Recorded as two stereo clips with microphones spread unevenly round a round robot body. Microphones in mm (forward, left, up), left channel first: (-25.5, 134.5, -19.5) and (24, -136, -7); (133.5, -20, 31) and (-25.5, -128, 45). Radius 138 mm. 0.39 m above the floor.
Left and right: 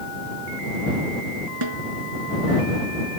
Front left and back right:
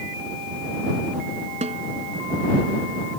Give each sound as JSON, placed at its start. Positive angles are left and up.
{"t": 1.6, "sound": "a snare drum", "azimuth_deg": -90}